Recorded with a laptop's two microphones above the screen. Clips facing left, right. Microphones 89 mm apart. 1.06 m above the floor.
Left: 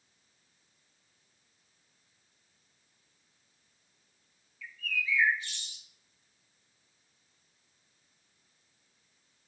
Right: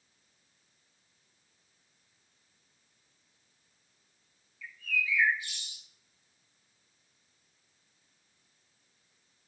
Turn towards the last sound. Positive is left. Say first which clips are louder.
# right 1 dB
turn(degrees=-15)  # may be behind; listen again after turning